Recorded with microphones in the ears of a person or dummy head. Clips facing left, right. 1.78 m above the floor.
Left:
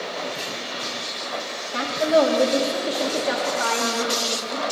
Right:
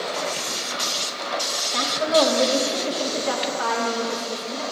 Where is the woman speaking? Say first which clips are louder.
Left 2 dB; 5° right (ahead or behind), 1.9 m.